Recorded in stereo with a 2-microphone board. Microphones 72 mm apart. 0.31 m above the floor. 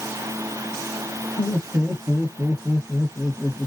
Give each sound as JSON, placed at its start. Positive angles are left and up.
{"t": 1.4, "sound": "laughter", "side_deg": -25, "distance_m": 1.1}